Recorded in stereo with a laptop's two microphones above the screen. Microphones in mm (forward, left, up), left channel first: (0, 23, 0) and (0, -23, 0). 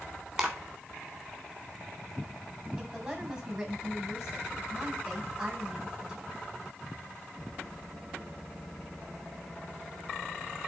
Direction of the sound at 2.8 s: 25° right (ahead or behind).